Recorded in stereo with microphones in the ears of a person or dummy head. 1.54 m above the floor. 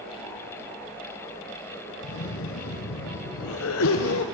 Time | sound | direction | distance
2.0 | a cough | 70° left (ahead or behind) | 1.1 m